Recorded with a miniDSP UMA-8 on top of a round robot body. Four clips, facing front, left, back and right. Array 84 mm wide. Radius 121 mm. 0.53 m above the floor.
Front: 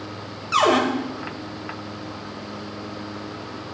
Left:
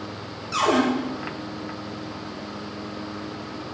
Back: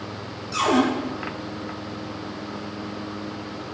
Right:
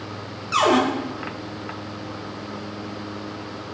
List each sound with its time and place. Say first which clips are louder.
0.5 s a cupboard door: right 3 dB, front 2 dB; 30° right, 2 m